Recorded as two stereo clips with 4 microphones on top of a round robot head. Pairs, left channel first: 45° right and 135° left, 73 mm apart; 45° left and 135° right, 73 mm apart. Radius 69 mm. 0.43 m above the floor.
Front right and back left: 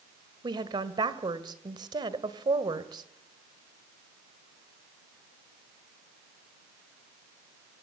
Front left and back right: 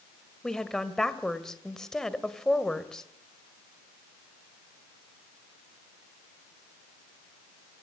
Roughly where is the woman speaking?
Behind left.